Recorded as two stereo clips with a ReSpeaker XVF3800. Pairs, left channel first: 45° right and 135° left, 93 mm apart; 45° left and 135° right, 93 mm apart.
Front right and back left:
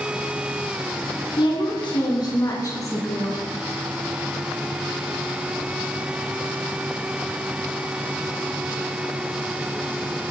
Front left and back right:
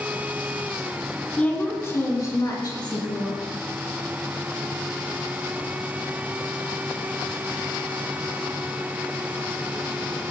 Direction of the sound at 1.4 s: 30° right.